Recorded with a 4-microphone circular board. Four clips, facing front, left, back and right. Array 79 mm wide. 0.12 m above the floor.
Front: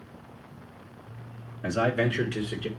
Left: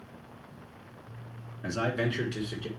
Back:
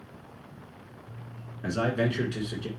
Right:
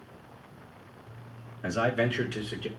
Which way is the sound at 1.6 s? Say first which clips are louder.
Right 3 dB, front 2 dB; 80° right.